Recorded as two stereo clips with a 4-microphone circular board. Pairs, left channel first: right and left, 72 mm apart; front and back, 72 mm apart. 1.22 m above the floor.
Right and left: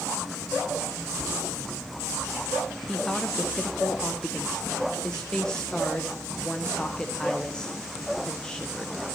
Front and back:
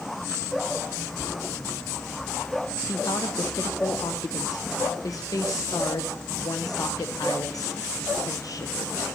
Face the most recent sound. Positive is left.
turn(degrees=-10)